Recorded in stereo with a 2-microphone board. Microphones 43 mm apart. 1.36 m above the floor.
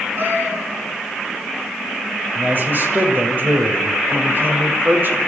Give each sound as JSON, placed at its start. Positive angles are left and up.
{"t": 0.2, "sound": "a cat meowing", "side_deg": -50, "distance_m": 7.0}
{"t": 2.4, "sound": "a man speaking", "side_deg": -45, "distance_m": 6.5}